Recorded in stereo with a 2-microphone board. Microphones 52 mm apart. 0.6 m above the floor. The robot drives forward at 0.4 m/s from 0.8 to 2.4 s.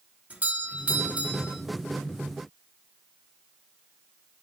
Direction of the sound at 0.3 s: 30° right (ahead or behind).